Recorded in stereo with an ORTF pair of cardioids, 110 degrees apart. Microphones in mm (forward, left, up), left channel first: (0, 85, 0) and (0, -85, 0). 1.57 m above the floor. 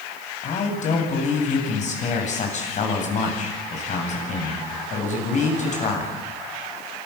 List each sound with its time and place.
0.4 s a man speaking: 45° left, 9 m